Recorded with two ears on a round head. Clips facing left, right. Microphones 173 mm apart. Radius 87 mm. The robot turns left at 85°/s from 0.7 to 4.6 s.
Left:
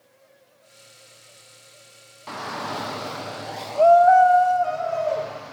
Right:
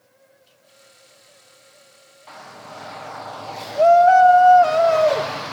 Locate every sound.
2.3 s a shout: 115° left, 0.7 m; by 5.5 s 80° right, 0.7 m